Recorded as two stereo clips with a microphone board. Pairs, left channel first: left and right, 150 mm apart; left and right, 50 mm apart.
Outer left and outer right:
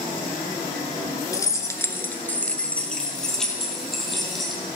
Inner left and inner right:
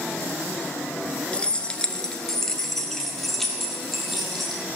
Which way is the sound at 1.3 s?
20° left (ahead or behind).